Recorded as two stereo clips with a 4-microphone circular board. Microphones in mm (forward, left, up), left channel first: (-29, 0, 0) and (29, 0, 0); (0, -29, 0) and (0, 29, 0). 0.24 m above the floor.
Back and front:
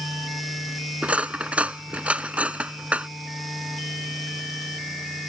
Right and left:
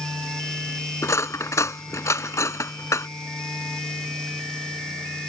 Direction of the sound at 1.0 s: 65° right.